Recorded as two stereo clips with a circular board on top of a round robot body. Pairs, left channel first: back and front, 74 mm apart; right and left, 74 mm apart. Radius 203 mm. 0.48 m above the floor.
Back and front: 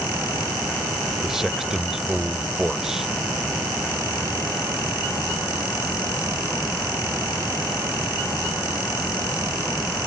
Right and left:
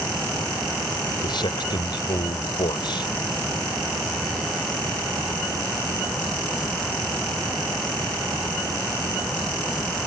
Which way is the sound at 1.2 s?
85° right.